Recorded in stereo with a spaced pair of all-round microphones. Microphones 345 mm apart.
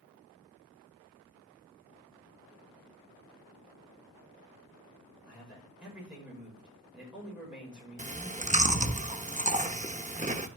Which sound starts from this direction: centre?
A man speaking, at 5.3 s.